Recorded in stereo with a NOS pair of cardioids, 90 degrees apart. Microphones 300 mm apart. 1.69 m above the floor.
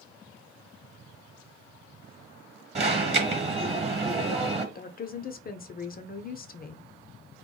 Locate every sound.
2.8 s an alarm: 25° right, 1.2 m
4.8 s a woman speaking: 30° left, 0.5 m